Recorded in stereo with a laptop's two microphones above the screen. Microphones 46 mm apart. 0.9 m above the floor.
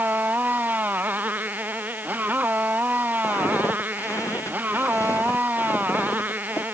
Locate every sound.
0.0 s a motorcycle: 35° right (ahead or behind)
3.2 s footsteps: 85° left; by 6.6 s 80° left